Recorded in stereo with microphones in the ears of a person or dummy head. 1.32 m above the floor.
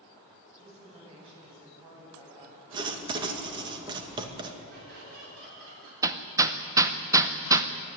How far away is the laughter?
About 10 m.